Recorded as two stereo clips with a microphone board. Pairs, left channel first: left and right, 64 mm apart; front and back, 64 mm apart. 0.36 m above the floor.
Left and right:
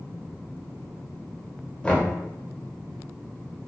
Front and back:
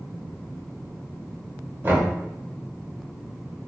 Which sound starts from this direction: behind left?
Knocking, at 1.8 s.